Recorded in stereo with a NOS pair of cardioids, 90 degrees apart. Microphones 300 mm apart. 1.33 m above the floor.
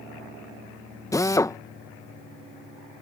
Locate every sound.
1.1 s a drill: 10° left